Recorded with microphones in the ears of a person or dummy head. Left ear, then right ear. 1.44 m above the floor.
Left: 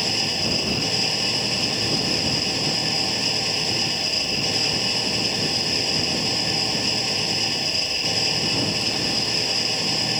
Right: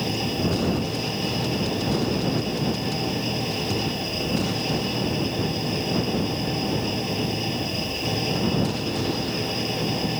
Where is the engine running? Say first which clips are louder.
Left 4 dB; 45° left (ahead or behind).